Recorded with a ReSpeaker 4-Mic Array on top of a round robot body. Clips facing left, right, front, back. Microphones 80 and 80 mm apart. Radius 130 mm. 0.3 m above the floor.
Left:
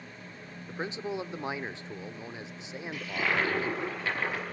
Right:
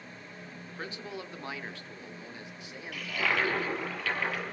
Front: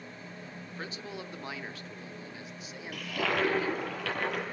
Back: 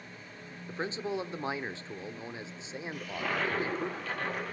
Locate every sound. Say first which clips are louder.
0.7 s a man speaking: left 7 dB, back 9 dB; 140° left, 1.0 m
2.9 s a toilet flushing: even, front 4 dB; 20° left, 6.5 m